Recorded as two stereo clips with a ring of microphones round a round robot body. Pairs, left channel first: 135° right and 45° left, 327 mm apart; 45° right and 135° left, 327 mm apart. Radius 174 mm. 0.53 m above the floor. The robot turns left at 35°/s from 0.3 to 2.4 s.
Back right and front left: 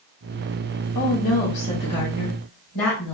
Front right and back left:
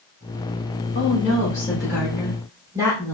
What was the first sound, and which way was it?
A woman speaking, 95° right.